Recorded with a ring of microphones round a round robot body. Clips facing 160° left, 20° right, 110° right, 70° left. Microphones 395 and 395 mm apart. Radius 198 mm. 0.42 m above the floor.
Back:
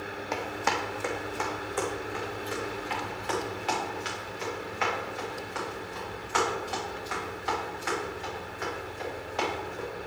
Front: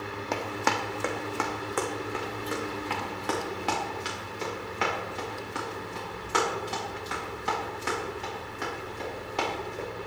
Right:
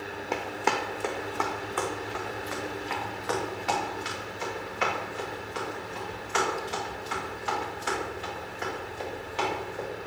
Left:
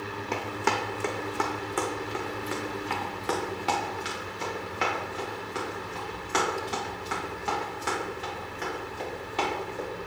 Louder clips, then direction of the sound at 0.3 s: Front 2 dB, even; 10° right.